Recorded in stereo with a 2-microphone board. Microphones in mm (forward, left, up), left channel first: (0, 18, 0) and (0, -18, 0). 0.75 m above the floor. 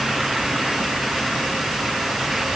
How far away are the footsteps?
No footsteps in this recording.